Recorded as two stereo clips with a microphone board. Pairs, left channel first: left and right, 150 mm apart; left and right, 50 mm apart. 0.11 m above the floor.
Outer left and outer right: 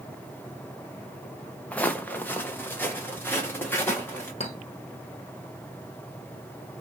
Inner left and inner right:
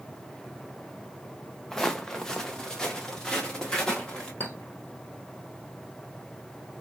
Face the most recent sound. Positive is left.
turn(degrees=45)  # may be behind; listen again after turning